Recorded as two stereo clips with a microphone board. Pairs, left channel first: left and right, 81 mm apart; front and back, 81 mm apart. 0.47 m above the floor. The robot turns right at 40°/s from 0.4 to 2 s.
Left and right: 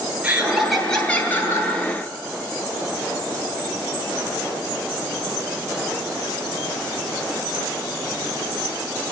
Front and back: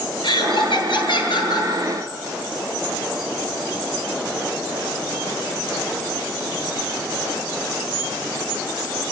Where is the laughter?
15° right, 8.5 m; by 1.7 s 40° left, 8.5 m.